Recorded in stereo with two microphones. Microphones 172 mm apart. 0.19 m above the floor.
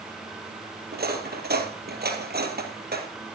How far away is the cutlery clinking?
About 2.5 m.